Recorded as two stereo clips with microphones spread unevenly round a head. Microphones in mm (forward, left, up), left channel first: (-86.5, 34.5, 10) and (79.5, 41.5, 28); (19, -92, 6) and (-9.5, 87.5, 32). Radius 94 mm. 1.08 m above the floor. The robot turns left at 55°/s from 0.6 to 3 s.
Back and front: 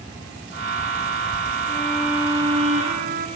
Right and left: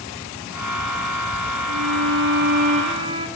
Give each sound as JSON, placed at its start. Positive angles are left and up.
{"t": 1.7, "sound": "a violin", "azimuth_deg": 110, "distance_m": 5.5}